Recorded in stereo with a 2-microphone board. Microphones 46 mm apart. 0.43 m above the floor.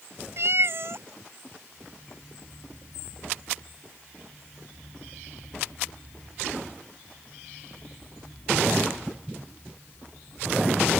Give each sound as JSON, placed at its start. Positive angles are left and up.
{"t": 0.4, "sound": "a cat meowing", "side_deg": -55}